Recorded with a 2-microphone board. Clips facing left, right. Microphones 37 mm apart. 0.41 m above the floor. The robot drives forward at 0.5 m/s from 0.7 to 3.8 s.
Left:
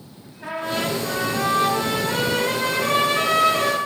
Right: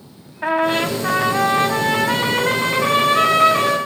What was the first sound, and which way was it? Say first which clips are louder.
A trumpet: right 7 dB; 60° right (ahead or behind).